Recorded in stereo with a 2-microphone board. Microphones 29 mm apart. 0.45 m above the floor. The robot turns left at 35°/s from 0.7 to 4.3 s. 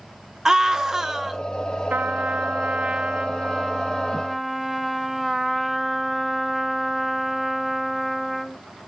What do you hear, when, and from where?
0.5 s a scream: 20° right (ahead or behind), 0.7 m; by 1.4 s 10° right (ahead or behind), 0.7 m
1.9 s a trumpet: 85° right, 0.6 m; by 8.6 s 170° right, 0.6 m